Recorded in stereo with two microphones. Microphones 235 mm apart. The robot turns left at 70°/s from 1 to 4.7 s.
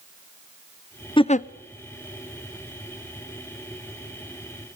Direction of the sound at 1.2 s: 20° left (ahead or behind).